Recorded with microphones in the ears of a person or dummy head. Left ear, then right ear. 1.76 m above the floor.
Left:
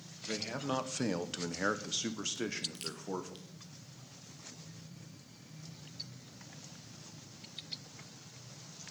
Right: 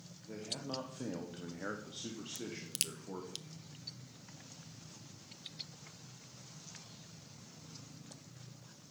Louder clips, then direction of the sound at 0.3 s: Left 6 dB; 65° left (ahead or behind).